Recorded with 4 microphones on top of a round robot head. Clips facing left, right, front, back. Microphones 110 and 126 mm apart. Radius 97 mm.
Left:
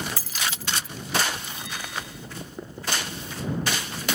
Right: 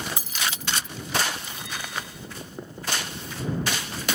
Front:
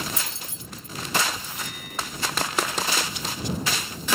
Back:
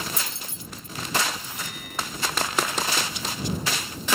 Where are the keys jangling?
20° right.